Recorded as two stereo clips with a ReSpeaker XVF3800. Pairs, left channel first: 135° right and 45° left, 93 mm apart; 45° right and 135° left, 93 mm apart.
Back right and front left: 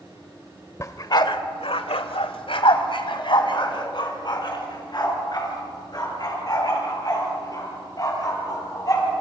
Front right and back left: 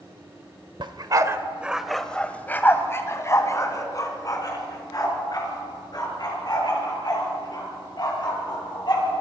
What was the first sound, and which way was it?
A dog barking, 170° left.